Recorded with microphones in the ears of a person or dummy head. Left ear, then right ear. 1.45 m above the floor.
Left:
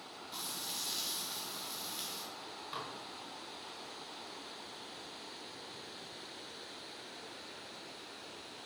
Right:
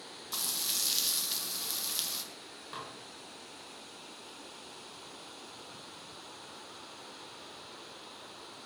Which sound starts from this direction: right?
Frying, at 0.3 s.